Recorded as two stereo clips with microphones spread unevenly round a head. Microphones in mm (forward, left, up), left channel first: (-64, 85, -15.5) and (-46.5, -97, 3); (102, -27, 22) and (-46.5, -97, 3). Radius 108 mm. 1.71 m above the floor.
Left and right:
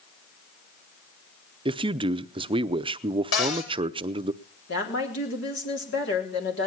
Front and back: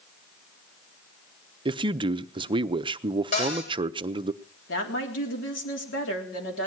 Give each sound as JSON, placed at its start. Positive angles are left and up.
{"t": 1.6, "sound": "a man speaking", "azimuth_deg": -105, "distance_m": 0.6}
{"t": 3.3, "sound": "a cupboard door", "azimuth_deg": 80, "distance_m": 4.5}
{"t": 4.7, "sound": "a woman speaking", "azimuth_deg": 55, "distance_m": 3.5}